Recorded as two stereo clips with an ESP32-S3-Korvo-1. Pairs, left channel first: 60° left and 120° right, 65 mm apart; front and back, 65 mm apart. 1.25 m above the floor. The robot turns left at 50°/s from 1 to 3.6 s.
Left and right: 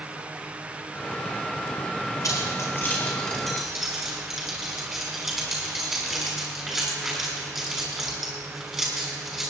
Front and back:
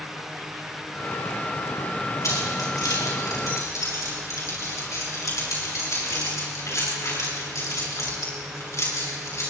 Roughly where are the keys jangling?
Ahead left.